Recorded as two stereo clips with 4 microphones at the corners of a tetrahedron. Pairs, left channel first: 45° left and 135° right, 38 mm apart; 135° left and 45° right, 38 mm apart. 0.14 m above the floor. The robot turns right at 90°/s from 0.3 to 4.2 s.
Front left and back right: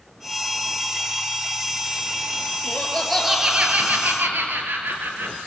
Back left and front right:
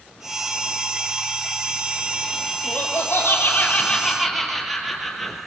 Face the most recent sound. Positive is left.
turn(degrees=-135)